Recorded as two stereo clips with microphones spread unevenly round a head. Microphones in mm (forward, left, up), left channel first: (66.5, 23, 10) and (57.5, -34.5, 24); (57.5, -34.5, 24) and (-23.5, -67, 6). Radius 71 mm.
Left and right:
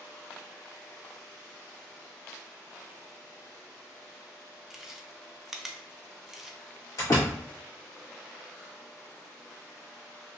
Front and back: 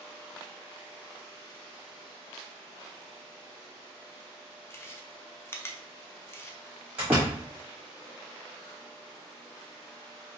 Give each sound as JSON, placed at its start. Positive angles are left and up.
{"t": 4.7, "sound": "chewing", "azimuth_deg": -25, "distance_m": 0.5}
{"t": 7.0, "sound": "a door slam", "azimuth_deg": 125, "distance_m": 1.0}